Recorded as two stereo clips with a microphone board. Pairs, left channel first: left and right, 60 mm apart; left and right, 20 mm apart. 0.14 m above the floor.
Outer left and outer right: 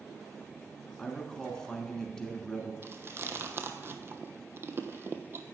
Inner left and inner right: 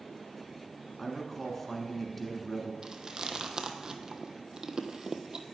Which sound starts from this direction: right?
Chewing, at 2.8 s.